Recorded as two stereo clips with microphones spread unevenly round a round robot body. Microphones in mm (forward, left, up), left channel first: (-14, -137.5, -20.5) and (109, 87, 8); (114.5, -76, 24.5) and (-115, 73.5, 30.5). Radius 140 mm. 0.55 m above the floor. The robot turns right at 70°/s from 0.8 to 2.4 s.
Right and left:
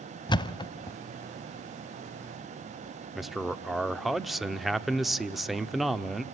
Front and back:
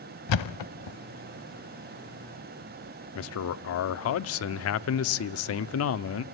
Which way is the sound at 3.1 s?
35° right.